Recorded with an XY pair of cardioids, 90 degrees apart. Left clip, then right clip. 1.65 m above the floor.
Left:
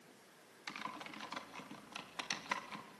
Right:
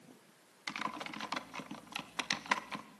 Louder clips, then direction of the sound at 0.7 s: Right 6 dB; 45° right.